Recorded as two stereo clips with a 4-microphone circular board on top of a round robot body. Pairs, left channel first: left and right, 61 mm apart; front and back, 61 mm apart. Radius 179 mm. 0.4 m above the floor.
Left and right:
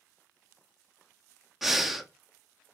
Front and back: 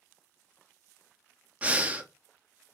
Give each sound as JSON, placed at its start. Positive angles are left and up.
{"t": 1.6, "sound": "breathing", "azimuth_deg": -170, "distance_m": 0.8}